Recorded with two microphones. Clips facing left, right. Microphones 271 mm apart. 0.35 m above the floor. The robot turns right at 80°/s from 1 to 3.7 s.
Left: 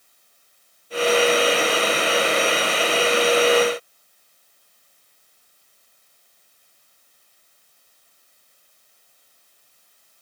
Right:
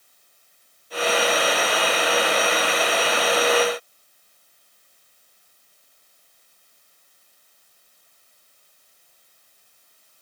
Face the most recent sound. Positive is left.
No sound to turn to.